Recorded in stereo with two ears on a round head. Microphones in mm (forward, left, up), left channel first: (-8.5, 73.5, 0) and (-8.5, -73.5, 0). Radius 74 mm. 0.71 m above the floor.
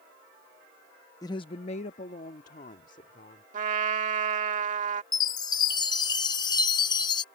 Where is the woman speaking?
20° left (ahead or behind); by 3.4 s 45° left (ahead or behind).